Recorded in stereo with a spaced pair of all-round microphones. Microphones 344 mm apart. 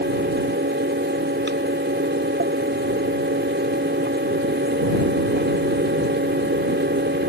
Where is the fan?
30° right (ahead or behind).